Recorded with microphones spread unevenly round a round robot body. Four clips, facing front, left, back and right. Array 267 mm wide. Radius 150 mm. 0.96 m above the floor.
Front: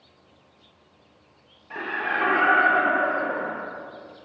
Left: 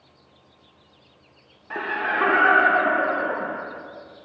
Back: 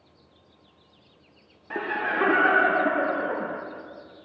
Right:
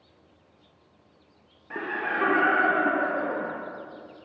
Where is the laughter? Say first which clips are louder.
Left 4 dB, back 1 dB; 175° right, 0.8 m.